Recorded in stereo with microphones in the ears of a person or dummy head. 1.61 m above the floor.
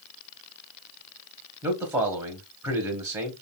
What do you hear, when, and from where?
1.6 s a man speaking: 10° right (ahead or behind), 0.8 m